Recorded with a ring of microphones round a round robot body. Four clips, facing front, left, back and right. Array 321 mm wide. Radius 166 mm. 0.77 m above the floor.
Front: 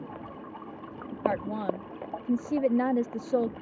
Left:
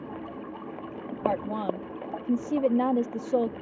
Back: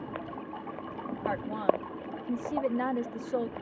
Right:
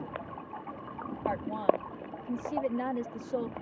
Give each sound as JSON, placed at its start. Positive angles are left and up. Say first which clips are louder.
{"t": 1.2, "sound": "a woman speaking", "louder": "left 1 dB, even", "azimuth_deg": 55}